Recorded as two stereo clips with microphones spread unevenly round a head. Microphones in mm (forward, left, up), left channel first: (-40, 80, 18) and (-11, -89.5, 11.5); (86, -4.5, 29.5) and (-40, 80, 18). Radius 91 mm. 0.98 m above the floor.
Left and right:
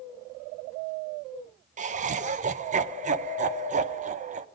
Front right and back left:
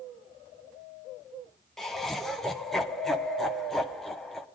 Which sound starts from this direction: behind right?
Laughter, at 1.8 s.